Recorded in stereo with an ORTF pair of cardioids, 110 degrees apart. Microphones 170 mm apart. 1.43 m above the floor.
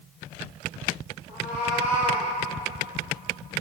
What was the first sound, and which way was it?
A cat meowing, 40° left.